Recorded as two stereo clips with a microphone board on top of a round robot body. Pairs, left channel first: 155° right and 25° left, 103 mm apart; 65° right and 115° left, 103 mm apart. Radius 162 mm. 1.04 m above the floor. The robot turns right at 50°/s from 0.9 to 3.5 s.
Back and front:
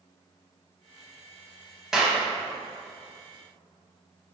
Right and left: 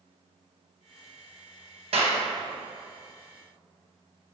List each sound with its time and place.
1.9 s a clap: 105° left, 0.7 m; by 2.2 s 120° left, 0.7 m